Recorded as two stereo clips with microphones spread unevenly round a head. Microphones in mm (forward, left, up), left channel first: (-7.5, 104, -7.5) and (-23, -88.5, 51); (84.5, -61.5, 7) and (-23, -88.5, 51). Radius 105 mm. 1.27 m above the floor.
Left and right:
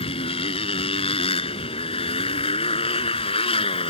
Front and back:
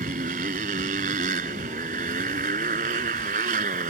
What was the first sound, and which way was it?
A motorcycle, 150° left.